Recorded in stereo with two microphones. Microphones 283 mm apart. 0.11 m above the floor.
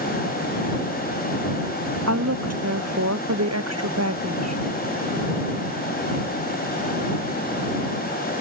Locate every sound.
2.1 s a woman speaking: 60° right (ahead or behind)